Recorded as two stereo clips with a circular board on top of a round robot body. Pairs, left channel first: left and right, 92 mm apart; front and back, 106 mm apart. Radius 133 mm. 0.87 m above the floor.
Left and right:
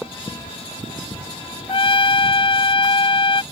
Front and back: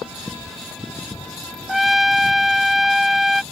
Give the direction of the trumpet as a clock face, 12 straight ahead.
9 o'clock.